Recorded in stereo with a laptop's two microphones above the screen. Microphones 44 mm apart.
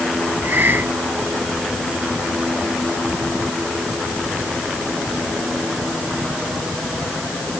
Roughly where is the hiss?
Right.